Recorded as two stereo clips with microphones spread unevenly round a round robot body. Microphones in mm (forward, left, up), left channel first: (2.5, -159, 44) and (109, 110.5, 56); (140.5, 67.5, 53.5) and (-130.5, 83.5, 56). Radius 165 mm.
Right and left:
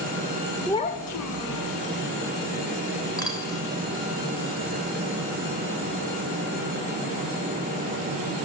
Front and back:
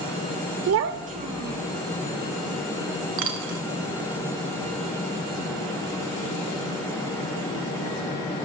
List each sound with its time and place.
0.7 s a child speaking: 160° left, 0.6 m; by 1.7 s 95° right, 1.5 m
3.2 s a dropped coin: 170° left, 1.6 m